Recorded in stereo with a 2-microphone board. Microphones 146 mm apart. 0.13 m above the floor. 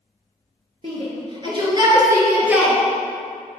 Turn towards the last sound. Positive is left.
turn(degrees=-5)  # may be behind; listen again after turning